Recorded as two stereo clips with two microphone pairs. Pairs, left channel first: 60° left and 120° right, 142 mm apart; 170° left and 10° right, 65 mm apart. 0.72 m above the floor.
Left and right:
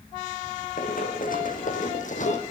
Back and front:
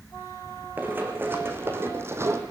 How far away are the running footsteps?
About 3 m.